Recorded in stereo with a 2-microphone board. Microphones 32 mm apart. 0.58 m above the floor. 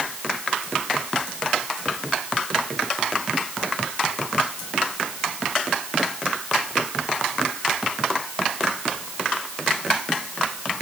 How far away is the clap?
No clap in this recording.